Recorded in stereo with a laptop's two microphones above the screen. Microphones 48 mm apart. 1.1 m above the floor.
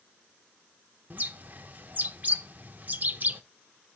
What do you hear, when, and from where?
1.1 s a bird: 35° right (ahead or behind), 0.6 m